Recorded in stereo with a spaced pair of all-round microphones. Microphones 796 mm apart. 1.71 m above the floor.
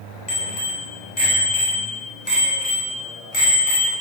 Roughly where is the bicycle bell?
Left.